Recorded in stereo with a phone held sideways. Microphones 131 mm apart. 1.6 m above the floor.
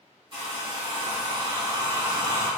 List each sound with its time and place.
0.3 s a hair dryer: 40° right (ahead or behind), 1.1 m